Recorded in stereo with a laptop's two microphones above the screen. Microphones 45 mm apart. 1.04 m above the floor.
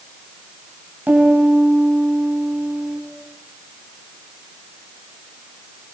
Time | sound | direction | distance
1.1 | a piano | 45° right (ahead or behind) | 3.5 m